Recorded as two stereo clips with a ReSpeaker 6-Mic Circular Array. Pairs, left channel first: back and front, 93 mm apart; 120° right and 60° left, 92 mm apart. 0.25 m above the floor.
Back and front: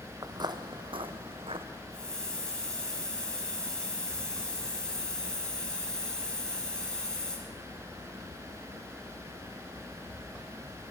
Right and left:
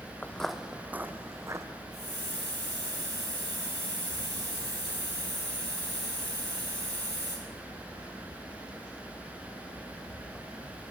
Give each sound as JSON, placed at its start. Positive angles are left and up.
{"t": 0.2, "sound": "footsteps", "azimuth_deg": -45, "distance_m": 0.5}
{"t": 1.9, "sound": "a hiss", "azimuth_deg": 100, "distance_m": 6.5}